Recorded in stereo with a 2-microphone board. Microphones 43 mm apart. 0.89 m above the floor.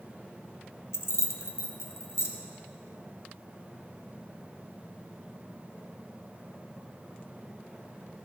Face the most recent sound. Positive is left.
turn(degrees=80)